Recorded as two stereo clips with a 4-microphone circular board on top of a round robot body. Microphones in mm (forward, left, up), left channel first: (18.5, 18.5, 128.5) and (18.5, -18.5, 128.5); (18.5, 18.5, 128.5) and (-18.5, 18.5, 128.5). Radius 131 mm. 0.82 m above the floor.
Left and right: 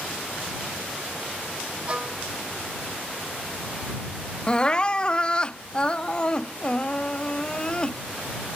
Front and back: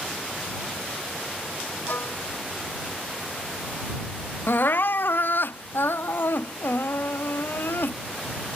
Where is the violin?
30° right.